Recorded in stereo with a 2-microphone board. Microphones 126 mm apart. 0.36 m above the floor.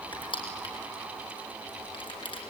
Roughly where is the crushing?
Left.